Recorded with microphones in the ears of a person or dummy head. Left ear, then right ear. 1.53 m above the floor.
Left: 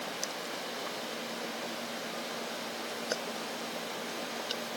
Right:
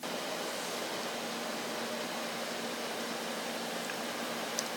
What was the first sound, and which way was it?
Only background noise.